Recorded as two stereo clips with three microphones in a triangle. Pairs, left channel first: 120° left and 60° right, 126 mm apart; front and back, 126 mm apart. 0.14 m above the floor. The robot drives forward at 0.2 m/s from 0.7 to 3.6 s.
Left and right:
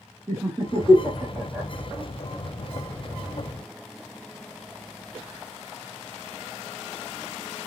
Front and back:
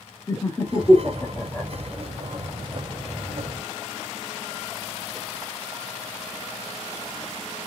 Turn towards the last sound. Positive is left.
turn(degrees=-115)